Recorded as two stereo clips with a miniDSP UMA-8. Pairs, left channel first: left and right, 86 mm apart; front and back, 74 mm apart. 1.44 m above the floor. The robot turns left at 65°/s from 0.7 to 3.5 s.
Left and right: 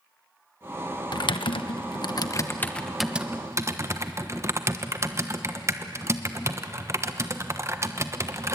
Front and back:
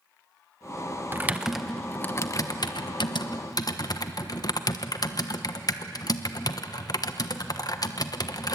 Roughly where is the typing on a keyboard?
Behind left.